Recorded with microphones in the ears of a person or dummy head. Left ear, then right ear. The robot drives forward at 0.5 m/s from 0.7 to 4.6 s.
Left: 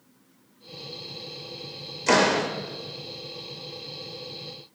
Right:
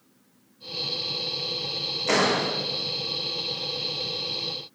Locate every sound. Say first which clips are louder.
2.1 s a door slam: left 3 dB; 85° left, 3 m